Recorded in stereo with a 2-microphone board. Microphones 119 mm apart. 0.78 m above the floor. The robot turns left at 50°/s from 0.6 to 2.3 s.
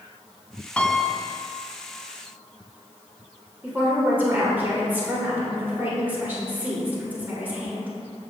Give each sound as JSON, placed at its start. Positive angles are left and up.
{"t": 0.8, "sound": "a piano", "azimuth_deg": 15, "distance_m": 0.8}
{"t": 3.6, "sound": "a woman speaking", "side_deg": -15, "distance_m": 2.5}